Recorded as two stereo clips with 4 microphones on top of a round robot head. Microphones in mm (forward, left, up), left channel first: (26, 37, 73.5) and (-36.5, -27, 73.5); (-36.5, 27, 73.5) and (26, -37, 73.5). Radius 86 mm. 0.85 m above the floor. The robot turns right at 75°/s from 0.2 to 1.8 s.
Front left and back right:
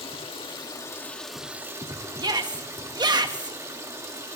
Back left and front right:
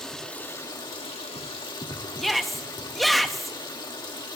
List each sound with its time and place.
0.0 s running water: 50° left, 2.5 m; by 4.4 s 170° left, 2.5 m
2.2 s a shout: 135° right, 1.1 m